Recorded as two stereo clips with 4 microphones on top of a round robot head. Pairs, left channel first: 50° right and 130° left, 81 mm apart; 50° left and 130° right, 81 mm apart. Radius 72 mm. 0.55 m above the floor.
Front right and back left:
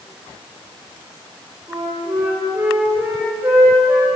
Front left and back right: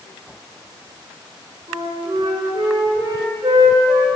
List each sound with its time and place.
1.7 s a flute: 170° right, 3.5 m